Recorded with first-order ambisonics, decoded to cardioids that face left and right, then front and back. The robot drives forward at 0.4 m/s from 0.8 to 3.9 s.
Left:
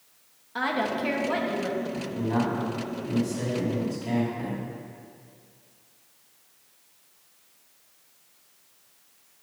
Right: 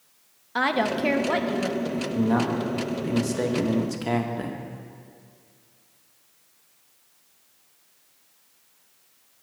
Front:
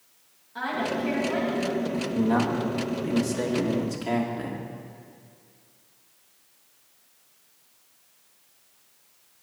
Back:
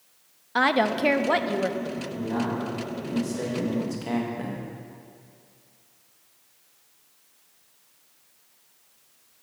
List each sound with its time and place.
0.6 s a woman speaking: 155° right, 0.5 m; by 1.8 s 165° right, 0.9 m
1.9 s a man speaking: 40° right, 1.4 m; by 4.6 s 85° right, 1.1 m